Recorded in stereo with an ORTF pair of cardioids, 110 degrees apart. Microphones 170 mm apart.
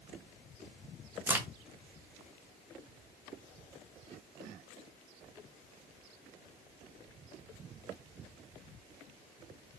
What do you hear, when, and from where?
1.3 s a crack: 10° right, 1.0 m